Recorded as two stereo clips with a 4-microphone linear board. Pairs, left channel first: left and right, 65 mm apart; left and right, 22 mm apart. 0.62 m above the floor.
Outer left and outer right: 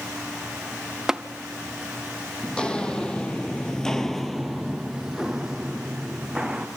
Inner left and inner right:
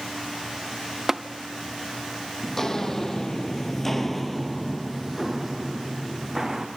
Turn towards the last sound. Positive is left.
turn(degrees=-10)  # may be behind; listen again after turning